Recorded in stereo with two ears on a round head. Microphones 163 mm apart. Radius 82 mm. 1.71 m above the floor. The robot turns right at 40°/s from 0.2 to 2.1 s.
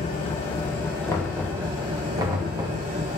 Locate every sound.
0.0 s an engine running: 140° left, 3.5 m; by 3.2 s 145° right, 3.5 m
1.1 s knocking: 20° left (ahead or behind), 3 m; by 2.8 s 20° right (ahead or behind), 3 m